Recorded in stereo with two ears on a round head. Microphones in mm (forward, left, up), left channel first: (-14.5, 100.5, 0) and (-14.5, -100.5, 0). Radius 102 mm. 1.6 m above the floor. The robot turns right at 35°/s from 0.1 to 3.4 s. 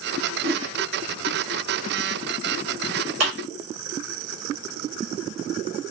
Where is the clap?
60° right (ahead or behind), 1.4 m; by 3.3 s 55° right (ahead or behind), 1.4 m.